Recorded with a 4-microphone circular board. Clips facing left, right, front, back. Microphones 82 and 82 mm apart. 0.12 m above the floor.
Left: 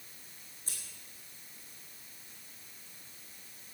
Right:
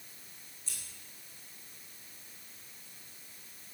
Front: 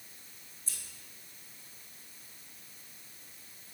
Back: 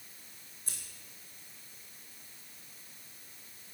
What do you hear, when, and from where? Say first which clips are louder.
0.7 s scissors: left 1 dB, back 1 dB; 140° left, 4.5 m